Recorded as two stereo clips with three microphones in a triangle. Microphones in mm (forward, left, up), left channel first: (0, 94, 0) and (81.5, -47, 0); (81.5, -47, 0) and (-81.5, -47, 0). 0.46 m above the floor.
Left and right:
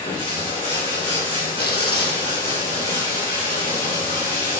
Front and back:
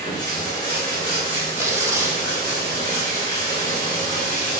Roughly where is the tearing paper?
Left.